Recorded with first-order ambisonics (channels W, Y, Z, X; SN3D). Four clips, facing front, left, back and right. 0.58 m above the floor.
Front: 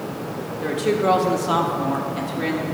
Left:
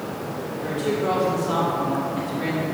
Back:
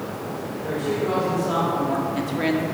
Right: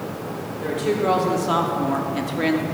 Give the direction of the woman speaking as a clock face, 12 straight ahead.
1 o'clock.